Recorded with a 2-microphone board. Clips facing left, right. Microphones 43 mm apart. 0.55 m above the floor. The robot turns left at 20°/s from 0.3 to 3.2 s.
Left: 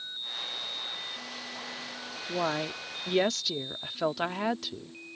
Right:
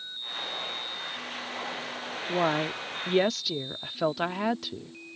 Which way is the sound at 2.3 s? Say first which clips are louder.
Right 4 dB; 15° right (ahead or behind).